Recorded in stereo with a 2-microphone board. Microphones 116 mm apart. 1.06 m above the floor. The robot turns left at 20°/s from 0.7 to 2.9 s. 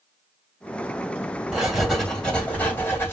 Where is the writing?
10° right (ahead or behind), 1.8 m; by 3.1 s 20° left (ahead or behind), 1.8 m.